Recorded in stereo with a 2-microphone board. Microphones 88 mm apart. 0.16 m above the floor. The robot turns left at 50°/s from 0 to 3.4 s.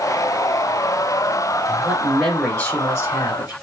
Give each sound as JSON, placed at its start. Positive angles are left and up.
{"t": 1.7, "sound": "a man speaking", "azimuth_deg": -160, "distance_m": 2.0}